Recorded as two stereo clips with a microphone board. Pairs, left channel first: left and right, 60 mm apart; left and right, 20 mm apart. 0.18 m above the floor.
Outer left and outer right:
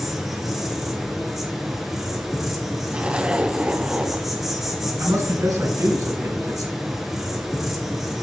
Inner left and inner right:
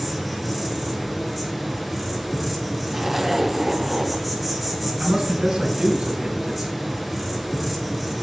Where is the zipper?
15° right (ahead or behind), 0.6 m.